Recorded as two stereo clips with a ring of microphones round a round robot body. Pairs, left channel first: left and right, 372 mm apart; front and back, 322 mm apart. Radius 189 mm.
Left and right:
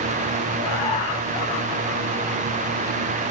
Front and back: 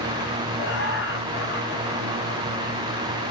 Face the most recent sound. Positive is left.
turn(degrees=60)